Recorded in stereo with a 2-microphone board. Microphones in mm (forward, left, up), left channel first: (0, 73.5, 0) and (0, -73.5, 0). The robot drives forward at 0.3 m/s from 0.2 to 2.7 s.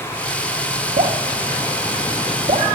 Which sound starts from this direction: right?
Dripping, at 1.0 s.